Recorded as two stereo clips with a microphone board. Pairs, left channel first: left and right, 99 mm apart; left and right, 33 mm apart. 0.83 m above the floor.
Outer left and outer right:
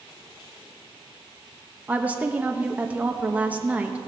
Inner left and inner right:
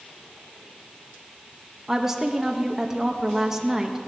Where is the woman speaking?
15° right (ahead or behind), 1.0 m.